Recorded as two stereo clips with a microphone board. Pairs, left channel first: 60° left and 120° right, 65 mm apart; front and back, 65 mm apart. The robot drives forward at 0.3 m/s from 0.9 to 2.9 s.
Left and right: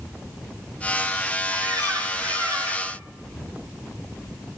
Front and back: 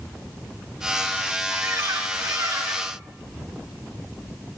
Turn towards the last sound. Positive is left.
turn(degrees=-140)